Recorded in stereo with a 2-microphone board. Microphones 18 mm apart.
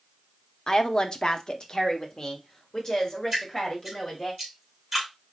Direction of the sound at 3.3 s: 10° right (ahead or behind).